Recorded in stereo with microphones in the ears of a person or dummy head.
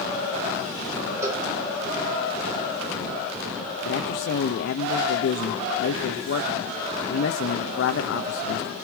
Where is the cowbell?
15° right (ahead or behind), 3 m.